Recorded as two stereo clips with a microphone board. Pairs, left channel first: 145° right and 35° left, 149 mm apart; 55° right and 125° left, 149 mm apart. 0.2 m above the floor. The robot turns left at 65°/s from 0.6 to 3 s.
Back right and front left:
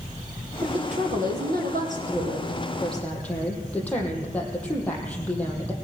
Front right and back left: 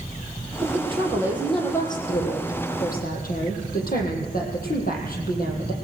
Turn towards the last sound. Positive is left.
turn(degrees=-65)